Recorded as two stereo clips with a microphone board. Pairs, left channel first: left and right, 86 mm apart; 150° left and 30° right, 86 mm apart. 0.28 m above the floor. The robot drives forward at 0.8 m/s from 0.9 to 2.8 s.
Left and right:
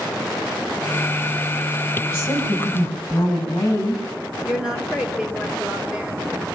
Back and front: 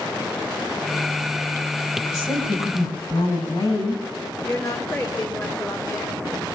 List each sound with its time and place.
2.0 s a woman speaking: 145° left, 8 m; by 4.0 s 150° left, 8.5 m
4.4 s a woman speaking: 170° right, 3 m